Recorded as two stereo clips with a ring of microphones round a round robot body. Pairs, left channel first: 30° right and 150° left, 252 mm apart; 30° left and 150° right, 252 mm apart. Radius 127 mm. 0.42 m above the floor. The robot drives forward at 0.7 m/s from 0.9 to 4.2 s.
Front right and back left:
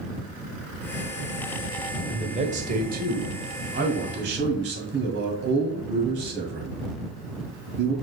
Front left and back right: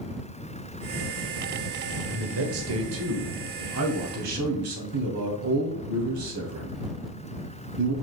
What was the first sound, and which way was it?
A man speaking, 145° right.